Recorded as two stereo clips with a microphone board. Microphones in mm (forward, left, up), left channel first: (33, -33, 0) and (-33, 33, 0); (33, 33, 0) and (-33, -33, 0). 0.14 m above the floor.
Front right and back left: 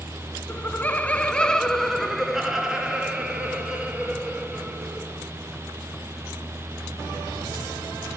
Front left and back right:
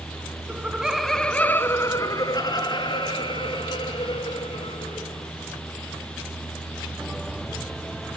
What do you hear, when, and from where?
0.5 s laughter: 85° right, 1.1 m; by 5.3 s 60° left, 3 m